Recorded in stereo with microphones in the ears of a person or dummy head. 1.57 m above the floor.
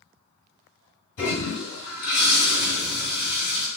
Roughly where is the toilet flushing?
Left.